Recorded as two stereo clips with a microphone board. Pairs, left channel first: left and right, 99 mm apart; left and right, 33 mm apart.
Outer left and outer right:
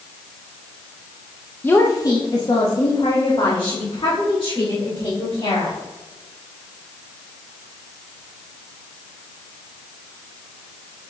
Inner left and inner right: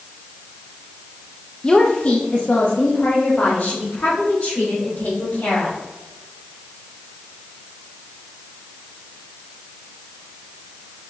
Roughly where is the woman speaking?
Left.